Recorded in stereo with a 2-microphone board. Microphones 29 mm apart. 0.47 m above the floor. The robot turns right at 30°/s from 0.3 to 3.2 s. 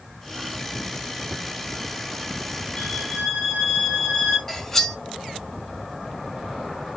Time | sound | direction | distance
2.8 | a violin | 40° left (ahead or behind) | 8 m
4.5 | cutlery clinking | 15° left (ahead or behind) | 1.4 m